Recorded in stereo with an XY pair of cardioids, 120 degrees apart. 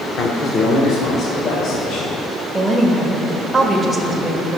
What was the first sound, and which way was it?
A man speaking, 45° left.